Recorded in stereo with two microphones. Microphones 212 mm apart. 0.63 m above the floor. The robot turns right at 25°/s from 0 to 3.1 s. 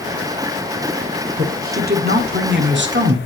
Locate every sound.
1.4 s a woman speaking: 130° right, 1.7 m; by 3.2 s 90° right, 1.7 m